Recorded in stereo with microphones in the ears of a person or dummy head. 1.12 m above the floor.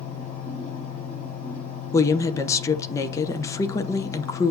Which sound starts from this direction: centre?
A woman speaking, at 1.9 s.